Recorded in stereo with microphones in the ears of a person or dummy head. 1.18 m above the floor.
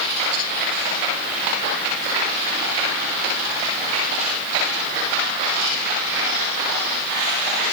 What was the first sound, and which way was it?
Only background noise.